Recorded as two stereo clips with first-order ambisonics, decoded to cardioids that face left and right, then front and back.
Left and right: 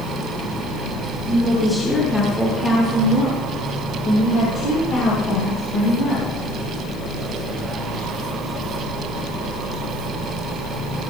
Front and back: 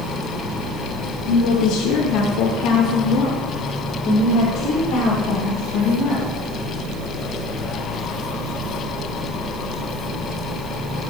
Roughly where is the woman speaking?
Ahead.